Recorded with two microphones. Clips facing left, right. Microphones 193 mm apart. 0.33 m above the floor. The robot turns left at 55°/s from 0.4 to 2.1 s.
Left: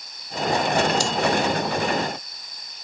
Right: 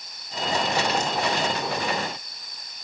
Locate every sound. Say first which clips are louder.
1.0 s breathing: left 3 dB; 85° left; by 1.1 s 80° left